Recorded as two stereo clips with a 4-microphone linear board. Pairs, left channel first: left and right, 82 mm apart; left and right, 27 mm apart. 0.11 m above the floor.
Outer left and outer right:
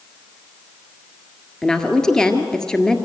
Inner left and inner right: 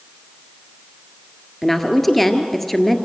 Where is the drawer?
No drawer in this recording.